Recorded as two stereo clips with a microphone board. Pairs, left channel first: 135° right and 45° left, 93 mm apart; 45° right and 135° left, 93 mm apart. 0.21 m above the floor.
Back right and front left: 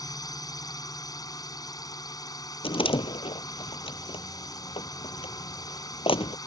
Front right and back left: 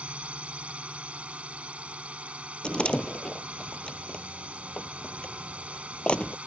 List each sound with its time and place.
0.0 s a drone: 155° right
2.6 s a door slam: 125° right